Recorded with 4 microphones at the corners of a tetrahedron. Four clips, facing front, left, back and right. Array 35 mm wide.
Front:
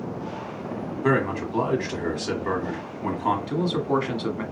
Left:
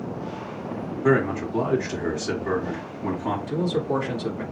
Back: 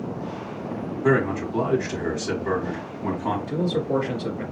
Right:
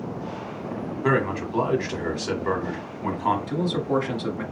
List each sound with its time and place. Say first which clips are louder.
1.0 s a man speaking: left 2 dB, back 2 dB; 55° right, 1.4 m
3.5 s a man speaking: even, even; 10° right, 1.5 m